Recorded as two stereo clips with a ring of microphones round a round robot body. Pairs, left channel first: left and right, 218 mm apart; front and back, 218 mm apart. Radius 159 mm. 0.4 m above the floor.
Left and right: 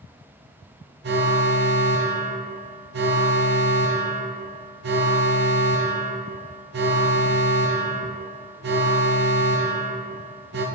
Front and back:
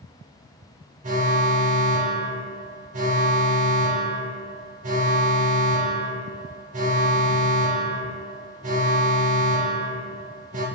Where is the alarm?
125° right, 0.7 m.